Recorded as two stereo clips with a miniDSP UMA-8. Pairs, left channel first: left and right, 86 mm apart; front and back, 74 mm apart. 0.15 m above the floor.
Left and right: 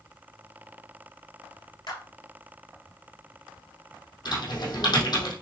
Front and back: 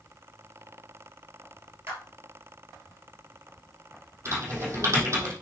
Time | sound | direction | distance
1.9 | a clap | 125° left | 3 m
4.2 | typing on a keyboard | 130° left | 3 m